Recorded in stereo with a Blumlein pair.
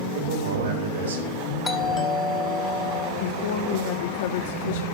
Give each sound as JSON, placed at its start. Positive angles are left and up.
{"t": 0.1, "sound": "a man speaking", "azimuth_deg": -70, "distance_m": 4.5}
{"t": 1.6, "sound": "a doorbell", "azimuth_deg": 15, "distance_m": 1.7}
{"t": 3.2, "sound": "a woman speaking", "azimuth_deg": 55, "distance_m": 1.6}